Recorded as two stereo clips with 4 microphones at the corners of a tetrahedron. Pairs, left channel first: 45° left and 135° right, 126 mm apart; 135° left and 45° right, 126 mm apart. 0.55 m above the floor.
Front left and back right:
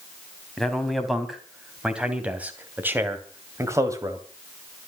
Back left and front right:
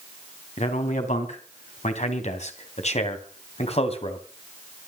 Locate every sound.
0.6 s a man speaking: 135° left, 3.5 m; by 4.2 s 165° left, 3 m